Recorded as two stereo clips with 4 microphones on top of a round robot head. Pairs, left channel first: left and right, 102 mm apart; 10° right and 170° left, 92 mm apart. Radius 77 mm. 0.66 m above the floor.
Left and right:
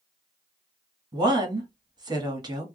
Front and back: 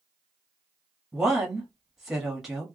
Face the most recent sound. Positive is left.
turn(degrees=-105)